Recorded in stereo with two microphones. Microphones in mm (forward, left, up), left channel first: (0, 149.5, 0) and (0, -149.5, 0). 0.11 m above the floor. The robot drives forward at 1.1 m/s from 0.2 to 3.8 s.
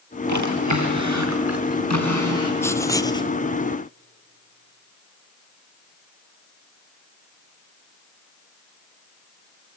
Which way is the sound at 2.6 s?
10° left (ahead or behind).